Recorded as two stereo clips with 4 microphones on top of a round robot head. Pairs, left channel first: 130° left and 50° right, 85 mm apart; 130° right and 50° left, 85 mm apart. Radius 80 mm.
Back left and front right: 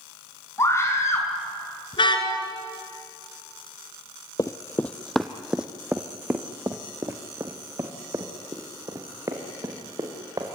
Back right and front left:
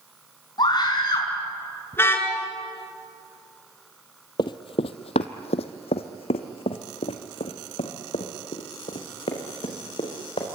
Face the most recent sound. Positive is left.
turn(degrees=-100)